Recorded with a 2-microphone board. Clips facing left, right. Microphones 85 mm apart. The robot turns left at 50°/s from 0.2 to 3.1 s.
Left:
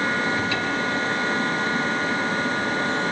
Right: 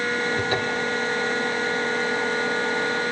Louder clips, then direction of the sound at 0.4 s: Even; 45° right (ahead or behind).